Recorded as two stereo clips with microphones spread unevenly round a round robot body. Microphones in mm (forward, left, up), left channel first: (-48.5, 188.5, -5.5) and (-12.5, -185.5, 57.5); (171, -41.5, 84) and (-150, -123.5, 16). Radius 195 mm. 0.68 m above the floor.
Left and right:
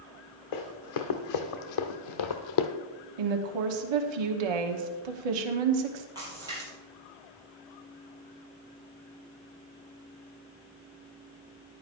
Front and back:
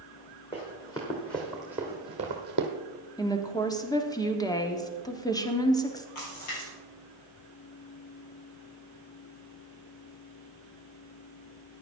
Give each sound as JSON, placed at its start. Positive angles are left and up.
{"t": 0.5, "sound": "running footsteps", "azimuth_deg": 90, "distance_m": 2.0}
{"t": 3.2, "sound": "a woman speaking", "azimuth_deg": -70, "distance_m": 1.2}
{"t": 6.2, "sound": "a splash", "azimuth_deg": -5, "distance_m": 5.5}